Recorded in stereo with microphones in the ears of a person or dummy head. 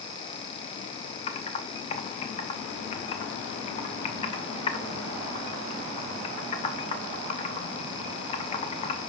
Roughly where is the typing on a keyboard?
Left.